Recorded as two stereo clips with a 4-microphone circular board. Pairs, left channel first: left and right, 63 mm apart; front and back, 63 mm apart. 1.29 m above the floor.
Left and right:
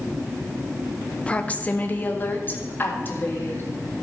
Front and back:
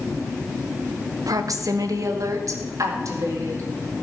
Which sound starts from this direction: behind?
A woman speaking, at 1.3 s.